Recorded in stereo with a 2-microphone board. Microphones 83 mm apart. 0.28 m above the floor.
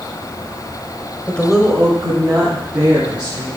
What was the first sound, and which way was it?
A woman speaking, 20° left (ahead or behind).